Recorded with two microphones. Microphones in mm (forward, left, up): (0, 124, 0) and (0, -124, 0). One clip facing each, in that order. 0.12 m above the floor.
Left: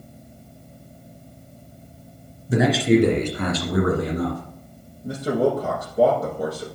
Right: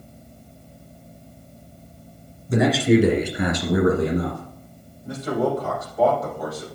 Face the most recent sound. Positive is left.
turn(degrees=40)  # may be behind; listen again after turning